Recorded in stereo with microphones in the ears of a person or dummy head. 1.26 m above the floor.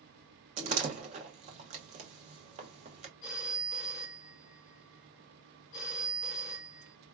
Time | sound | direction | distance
0.6 | a door slam | 35° right (ahead or behind) | 0.7 m
3.2 | a phone ringing | 45° left (ahead or behind) | 0.7 m